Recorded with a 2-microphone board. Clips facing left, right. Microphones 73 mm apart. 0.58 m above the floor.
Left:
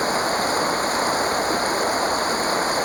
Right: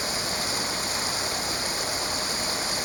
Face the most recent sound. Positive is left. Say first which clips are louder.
# left 10 dB
turn(degrees=45)  # may be behind; listen again after turning